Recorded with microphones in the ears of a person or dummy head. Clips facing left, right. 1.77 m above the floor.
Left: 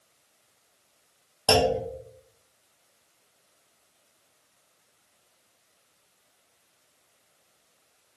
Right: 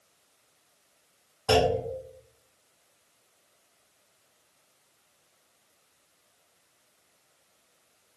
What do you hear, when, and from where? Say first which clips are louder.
1.5 s a clunk: left 1 dB; 65° left (ahead or behind), 1.0 m